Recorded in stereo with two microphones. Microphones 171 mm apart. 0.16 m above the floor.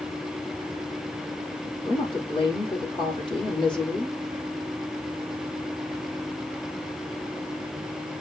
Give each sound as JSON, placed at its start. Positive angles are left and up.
{"t": 1.9, "sound": "a woman speaking", "side_deg": 30, "distance_m": 5.0}